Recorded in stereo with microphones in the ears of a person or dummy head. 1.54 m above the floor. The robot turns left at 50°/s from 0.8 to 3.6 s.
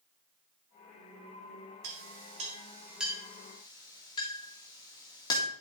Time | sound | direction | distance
1.8 | a clink | 60° right (ahead or behind) | 1.7 m